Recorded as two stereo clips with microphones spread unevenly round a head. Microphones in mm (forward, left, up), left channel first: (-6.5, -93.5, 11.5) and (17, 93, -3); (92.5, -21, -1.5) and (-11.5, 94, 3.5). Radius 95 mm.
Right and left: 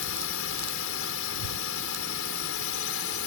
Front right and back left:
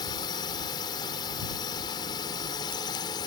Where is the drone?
115° right.